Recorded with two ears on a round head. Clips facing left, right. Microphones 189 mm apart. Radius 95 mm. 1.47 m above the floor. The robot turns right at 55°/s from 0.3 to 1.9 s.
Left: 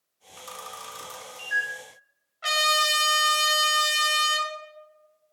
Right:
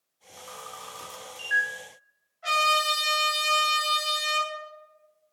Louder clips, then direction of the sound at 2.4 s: Even; 75° left (ahead or behind).